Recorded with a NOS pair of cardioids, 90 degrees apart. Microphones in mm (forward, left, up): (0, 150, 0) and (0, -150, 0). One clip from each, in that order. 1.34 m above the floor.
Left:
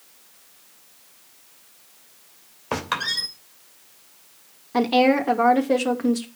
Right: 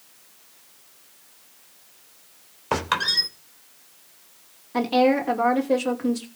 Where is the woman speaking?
20° left, 2.5 m.